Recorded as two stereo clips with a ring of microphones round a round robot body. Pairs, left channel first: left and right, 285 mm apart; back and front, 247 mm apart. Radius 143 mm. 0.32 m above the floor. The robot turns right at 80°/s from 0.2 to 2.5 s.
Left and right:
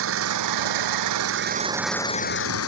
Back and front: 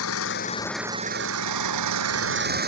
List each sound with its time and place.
0.0 s an engine running: 135° right; by 2.7 s 50° left